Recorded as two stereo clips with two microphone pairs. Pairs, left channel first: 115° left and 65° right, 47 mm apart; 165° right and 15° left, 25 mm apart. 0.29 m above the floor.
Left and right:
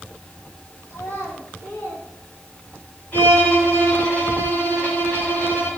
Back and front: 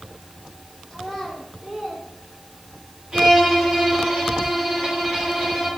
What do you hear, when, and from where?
0.9 s a child speaking: 90° left, 2 m; by 2.9 s 50° left, 4 m
3.1 s a violin: 65° left, 4.5 m